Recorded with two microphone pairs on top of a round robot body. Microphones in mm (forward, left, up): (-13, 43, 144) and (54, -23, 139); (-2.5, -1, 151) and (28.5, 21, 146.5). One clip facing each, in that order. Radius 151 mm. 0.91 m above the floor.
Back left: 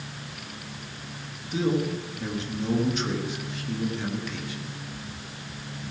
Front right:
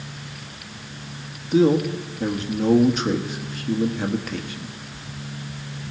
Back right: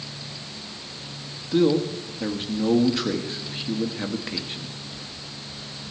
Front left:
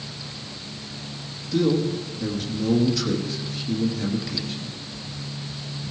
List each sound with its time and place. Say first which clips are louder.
1.5 s a man speaking: front right 8 dB, back right 1 dB; 85° right, 1.7 m